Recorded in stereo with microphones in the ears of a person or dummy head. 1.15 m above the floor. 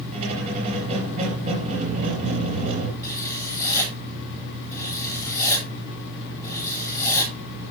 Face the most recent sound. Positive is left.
turn(degrees=15)  # may be behind; listen again after turning